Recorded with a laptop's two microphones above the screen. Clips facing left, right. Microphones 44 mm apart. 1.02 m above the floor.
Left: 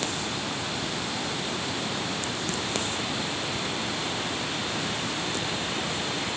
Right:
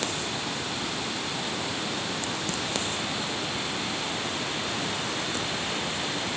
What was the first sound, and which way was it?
Only background noise.